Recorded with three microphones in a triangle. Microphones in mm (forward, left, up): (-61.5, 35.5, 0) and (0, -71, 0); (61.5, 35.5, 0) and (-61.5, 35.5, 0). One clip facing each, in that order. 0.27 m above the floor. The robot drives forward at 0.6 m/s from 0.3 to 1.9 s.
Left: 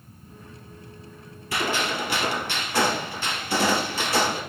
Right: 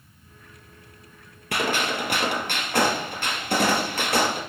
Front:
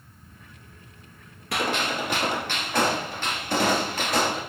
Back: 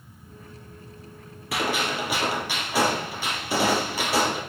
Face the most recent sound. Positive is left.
turn(degrees=-100)